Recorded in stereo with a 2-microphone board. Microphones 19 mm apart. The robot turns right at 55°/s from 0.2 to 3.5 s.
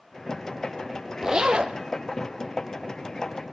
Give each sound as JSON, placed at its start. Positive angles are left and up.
{"t": 1.2, "sound": "a zipper", "azimuth_deg": -150, "distance_m": 1.5}